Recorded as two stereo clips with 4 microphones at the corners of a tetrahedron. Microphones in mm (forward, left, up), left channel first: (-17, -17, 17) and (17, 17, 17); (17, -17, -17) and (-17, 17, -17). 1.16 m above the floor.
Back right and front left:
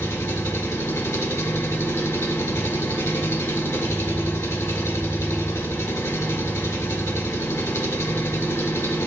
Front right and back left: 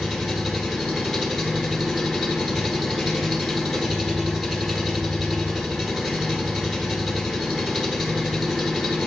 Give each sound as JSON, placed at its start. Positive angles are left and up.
{"t": 0.0, "sound": "an engine running", "azimuth_deg": -140, "distance_m": 1.6}